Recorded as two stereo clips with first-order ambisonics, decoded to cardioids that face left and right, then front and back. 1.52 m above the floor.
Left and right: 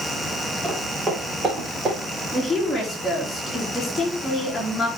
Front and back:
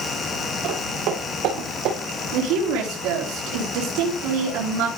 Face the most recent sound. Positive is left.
turn(degrees=175)